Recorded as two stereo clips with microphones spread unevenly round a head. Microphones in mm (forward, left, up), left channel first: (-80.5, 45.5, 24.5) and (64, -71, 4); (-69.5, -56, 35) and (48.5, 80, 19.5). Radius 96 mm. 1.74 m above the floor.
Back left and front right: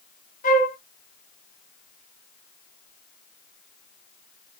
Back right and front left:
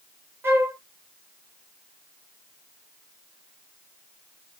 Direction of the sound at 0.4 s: 130° left.